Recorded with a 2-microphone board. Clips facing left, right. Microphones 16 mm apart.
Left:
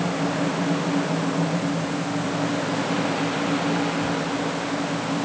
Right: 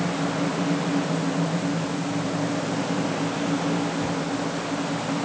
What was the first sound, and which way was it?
Only background noise.